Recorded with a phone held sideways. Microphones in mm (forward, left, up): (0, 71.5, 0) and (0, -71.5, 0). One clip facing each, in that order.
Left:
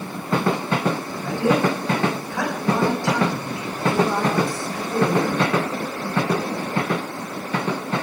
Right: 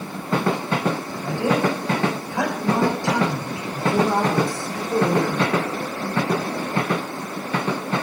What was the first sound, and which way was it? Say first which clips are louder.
A woman speaking: left 3 dB; 15° right (ahead or behind).